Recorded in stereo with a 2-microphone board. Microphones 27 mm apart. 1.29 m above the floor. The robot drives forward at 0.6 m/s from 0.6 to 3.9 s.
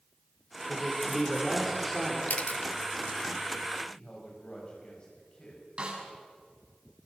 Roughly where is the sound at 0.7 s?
Centre.